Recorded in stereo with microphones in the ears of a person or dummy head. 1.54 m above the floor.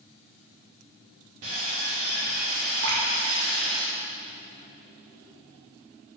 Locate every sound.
1.4 s sawing: 35° right (ahead or behind), 1.2 m
2.8 s dripping: 70° right (ahead or behind), 1.1 m